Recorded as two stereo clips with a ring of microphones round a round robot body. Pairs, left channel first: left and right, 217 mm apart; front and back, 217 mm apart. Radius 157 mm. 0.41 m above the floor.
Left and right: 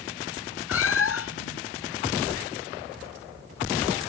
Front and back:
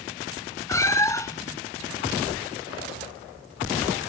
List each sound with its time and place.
0.7 s a cat meowing: 75° left